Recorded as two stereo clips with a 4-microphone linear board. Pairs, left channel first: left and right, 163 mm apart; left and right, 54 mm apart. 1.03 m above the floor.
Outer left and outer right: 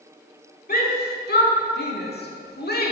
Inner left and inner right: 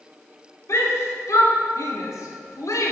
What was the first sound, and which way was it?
A shout, 65° left (ahead or behind).